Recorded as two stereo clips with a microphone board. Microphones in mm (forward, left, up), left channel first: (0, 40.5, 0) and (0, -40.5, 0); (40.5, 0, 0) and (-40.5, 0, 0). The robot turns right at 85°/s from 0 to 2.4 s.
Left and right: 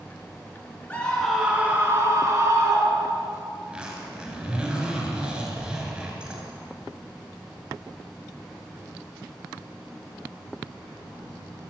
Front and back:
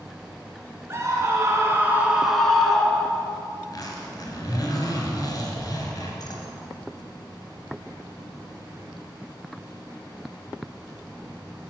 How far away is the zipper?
About 2.5 m.